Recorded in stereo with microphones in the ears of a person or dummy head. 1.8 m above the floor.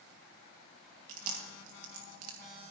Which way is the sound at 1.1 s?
50° right (ahead or behind).